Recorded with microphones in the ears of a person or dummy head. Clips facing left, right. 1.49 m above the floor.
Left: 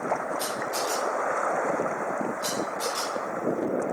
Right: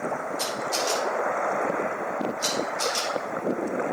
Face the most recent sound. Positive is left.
turn(degrees=-80)